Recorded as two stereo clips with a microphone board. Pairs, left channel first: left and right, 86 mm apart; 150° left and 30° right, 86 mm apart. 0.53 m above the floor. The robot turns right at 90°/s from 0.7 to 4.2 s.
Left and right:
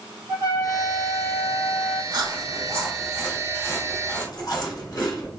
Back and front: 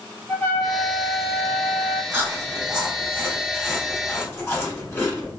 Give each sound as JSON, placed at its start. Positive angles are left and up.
{"t": 0.3, "sound": "a trumpet", "azimuth_deg": -140, "distance_m": 1.5}
{"t": 2.1, "sound": "chewing", "azimuth_deg": -90, "distance_m": 1.2}